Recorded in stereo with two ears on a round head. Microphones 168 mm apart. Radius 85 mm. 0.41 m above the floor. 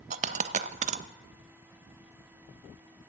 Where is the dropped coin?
40° right (ahead or behind), 0.5 m.